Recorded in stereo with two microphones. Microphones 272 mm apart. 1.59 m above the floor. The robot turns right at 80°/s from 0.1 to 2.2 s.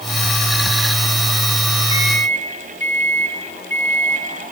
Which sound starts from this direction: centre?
A microwave, at 1.9 s.